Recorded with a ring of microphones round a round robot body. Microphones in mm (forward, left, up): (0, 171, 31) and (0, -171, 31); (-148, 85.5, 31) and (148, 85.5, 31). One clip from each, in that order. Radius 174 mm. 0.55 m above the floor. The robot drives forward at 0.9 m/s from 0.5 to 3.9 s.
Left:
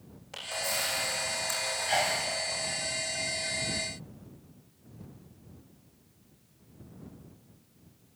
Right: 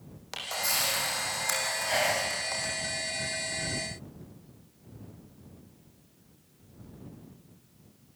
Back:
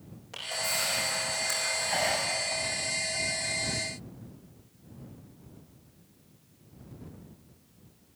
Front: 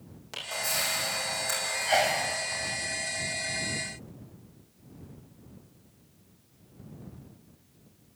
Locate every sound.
0.3 s a camera shutter: 65° right, 7.5 m; by 2.7 s 80° right, 6.5 m
1.9 s a sneeze: 5° left, 3.5 m